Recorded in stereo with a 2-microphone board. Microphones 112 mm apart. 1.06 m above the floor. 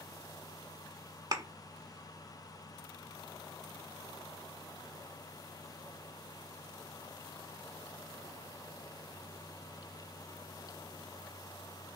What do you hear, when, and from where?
1.3 s a thud: 40° right (ahead or behind), 0.8 m